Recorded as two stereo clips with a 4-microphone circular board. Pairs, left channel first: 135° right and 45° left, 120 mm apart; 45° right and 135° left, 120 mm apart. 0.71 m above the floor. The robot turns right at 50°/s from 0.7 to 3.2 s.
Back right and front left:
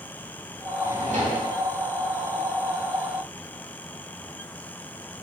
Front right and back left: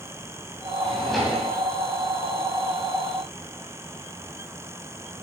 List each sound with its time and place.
0.8 s a drawer: 30° left, 3 m; by 1.5 s 60° left, 3 m